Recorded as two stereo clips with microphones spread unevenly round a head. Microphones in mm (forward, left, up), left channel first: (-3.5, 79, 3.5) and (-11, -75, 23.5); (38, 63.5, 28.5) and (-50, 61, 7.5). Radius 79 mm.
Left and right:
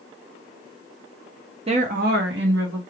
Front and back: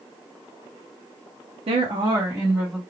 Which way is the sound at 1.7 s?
150° right.